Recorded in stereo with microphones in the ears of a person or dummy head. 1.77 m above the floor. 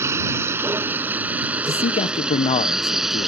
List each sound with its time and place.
0.0 s a vehicle: 15° right (ahead or behind); by 3.3 s centre (ahead or behind)
1.6 s a man speaking: 30° left (ahead or behind)